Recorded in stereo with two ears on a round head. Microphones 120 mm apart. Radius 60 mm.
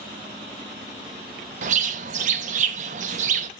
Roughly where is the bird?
Right.